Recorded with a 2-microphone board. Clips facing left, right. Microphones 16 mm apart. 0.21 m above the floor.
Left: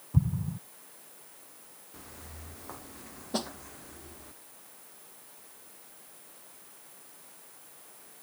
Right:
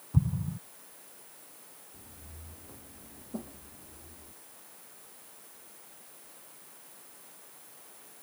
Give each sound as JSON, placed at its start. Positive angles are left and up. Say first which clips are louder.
{"t": 0.1, "sound": "an explosion", "louder": "left 1 dB", "side_deg": 5}
{"t": 1.9, "sound": "footsteps", "louder": "left 8 dB", "side_deg": 60}
{"t": 3.3, "sound": "a snare drum", "louder": "left 7 dB", "side_deg": 75}